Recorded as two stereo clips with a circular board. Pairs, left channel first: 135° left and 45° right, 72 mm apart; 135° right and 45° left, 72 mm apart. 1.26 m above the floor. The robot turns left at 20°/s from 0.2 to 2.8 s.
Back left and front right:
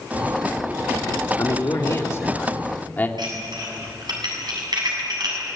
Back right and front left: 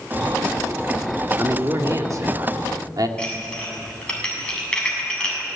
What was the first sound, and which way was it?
A man speaking, 100° left.